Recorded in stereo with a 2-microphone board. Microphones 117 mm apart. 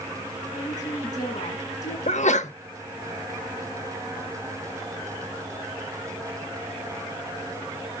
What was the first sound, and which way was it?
A woman speaking, 80° left.